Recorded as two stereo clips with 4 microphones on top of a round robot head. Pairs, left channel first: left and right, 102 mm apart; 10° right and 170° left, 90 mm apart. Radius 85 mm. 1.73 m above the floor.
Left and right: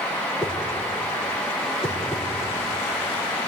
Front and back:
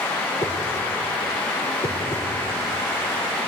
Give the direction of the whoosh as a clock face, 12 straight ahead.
12 o'clock.